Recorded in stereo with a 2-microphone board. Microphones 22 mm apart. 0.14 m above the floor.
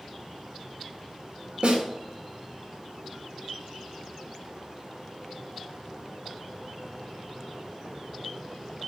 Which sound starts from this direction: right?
A snare drum, at 1.6 s.